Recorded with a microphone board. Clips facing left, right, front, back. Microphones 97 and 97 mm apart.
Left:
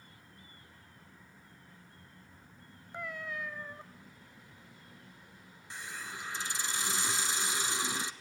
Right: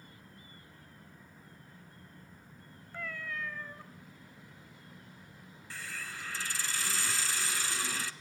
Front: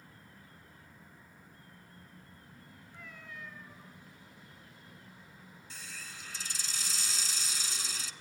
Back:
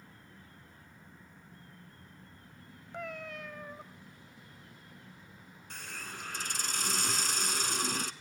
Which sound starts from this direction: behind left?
A hiss, at 5.7 s.